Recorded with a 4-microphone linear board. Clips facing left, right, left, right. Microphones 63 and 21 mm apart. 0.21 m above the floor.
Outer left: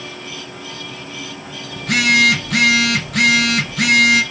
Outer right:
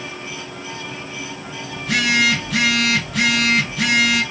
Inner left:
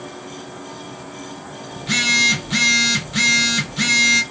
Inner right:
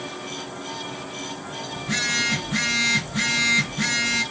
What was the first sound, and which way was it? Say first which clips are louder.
A phone buzzing: outer left 3 dB, inner left 7 dB; 65° left (ahead or behind).